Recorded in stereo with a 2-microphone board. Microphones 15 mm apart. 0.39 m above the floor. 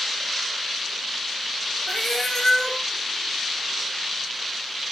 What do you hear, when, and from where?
1.9 s a cat meowing: 40° left (ahead or behind), 4 m